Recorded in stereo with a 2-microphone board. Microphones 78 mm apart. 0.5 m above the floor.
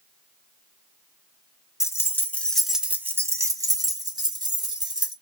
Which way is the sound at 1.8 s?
40° left (ahead or behind).